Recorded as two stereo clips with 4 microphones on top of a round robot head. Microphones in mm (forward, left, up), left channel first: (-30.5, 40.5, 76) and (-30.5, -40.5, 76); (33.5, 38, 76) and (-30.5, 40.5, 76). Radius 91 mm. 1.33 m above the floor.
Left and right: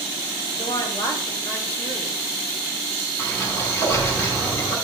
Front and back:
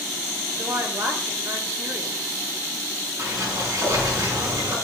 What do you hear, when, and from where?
0.6 s a woman speaking: 135° left, 2.5 m
3.2 s a sliding door: 150° left, 6.5 m